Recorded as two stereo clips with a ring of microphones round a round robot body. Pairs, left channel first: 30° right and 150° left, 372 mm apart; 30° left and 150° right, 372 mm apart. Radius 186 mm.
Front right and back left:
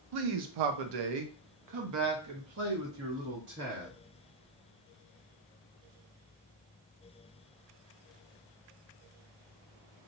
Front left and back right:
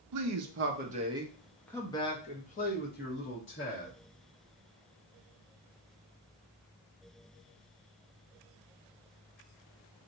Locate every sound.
0.1 s a man speaking: 175° left, 0.8 m; by 3.9 s 85° left, 1.9 m